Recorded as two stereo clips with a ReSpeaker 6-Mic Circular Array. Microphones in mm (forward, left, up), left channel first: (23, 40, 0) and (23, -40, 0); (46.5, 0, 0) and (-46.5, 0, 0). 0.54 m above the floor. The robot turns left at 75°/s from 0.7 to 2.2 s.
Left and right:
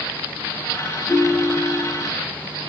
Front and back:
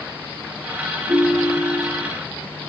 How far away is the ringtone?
About 1.3 m.